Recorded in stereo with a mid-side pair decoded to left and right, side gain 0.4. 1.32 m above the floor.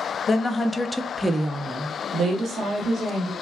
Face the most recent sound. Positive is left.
turn(degrees=-65)